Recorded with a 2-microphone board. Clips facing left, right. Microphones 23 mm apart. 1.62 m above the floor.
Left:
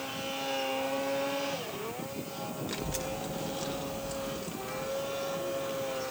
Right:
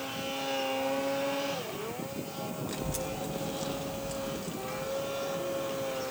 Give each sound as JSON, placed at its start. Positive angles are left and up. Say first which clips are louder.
{"t": 2.7, "sound": "a child speaking", "louder": "even", "side_deg": 20, "distance_m": 1.0}